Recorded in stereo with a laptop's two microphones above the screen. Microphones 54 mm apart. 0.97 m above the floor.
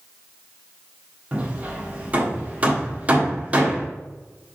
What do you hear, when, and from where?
1.3 s hammering: 30° right (ahead or behind), 1.3 m